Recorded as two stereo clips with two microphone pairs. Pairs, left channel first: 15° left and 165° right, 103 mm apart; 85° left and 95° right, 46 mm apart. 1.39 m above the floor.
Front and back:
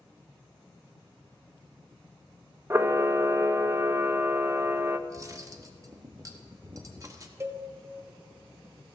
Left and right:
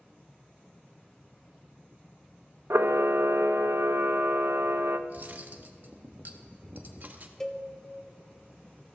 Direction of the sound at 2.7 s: 100° right.